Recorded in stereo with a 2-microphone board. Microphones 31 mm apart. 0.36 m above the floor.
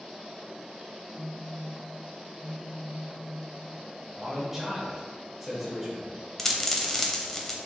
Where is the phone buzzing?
80° left, 1.5 m.